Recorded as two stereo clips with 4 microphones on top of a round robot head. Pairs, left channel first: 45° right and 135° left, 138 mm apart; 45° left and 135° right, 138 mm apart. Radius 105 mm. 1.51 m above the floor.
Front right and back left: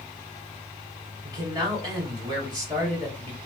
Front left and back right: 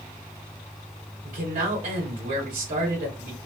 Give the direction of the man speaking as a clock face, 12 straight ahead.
5 o'clock.